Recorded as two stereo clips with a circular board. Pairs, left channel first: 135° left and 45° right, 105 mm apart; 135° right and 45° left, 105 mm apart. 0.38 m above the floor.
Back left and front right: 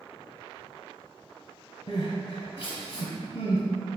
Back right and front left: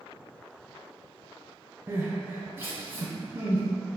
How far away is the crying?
About 0.8 m.